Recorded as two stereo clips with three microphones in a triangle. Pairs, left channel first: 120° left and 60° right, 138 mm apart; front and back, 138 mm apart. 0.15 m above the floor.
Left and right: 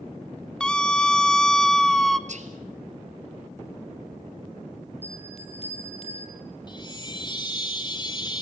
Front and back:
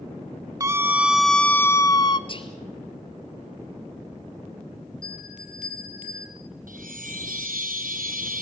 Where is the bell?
160° left, 2.5 m.